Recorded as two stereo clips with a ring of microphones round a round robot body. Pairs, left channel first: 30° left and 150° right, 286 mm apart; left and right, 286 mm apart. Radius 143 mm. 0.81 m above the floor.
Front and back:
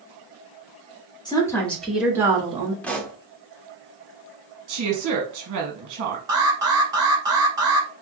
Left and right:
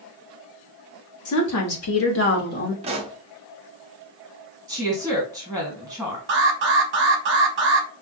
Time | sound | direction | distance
1.2 | a woman speaking | 105° left | 1.8 m
2.8 | a pop | 50° right | 0.8 m
4.7 | a woman speaking | 175° left | 1.3 m
6.3 | an alarm | 80° right | 1.2 m